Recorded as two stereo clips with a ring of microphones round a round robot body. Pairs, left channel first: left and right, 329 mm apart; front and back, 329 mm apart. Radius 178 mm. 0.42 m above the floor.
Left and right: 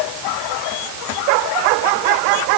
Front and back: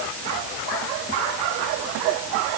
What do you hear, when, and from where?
Only background noise.